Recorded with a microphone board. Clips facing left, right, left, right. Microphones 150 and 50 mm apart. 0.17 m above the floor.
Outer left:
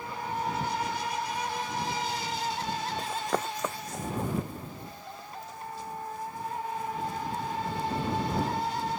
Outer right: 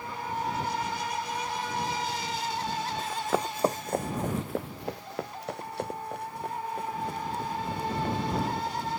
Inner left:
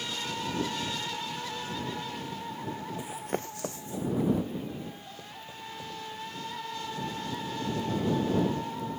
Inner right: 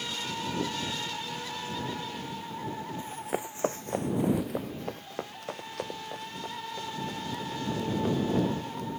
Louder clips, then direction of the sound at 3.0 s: Outer right 3 dB, inner right 1 dB; 15° left (ahead or behind).